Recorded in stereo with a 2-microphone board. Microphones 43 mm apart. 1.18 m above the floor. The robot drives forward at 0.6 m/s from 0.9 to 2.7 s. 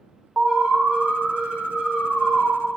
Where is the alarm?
30° right (ahead or behind), 0.6 m; by 2.5 s 10° right (ahead or behind), 1.4 m.